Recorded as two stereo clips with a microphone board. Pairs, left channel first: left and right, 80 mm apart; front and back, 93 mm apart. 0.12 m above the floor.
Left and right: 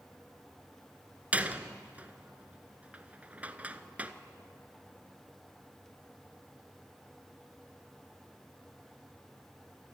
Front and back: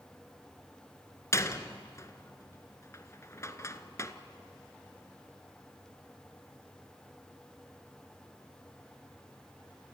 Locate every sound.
1.3 s a door slam: 30° right, 1.1 m